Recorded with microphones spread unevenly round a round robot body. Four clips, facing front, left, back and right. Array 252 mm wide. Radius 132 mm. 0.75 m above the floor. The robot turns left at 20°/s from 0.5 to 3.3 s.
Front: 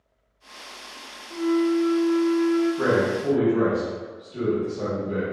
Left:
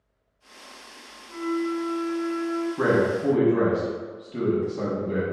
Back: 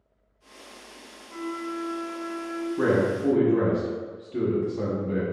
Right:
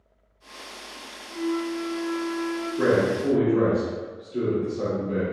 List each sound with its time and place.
1.3 s a flute: 130° left, 0.7 m; by 2.7 s 100° left, 0.7 m
2.8 s a man speaking: 160° left, 1.0 m; by 5.2 s 150° left, 1.0 m